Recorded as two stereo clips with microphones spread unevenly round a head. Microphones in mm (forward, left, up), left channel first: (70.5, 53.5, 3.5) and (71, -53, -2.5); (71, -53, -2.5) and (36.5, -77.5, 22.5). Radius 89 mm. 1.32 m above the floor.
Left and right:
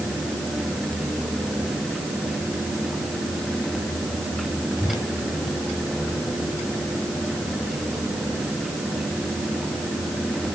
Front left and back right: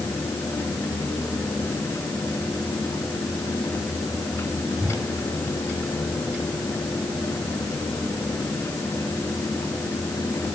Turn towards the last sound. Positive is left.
turn(degrees=155)